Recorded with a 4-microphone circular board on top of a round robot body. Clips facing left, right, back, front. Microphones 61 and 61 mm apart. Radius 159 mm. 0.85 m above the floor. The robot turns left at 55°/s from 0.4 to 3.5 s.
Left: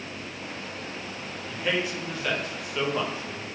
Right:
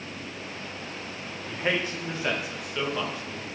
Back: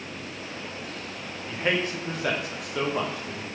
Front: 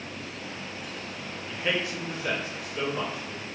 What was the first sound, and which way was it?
A man speaking, 115° right.